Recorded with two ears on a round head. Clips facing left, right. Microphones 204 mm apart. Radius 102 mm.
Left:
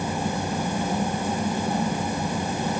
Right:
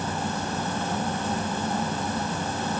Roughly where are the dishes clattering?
No dishes clattering in this recording.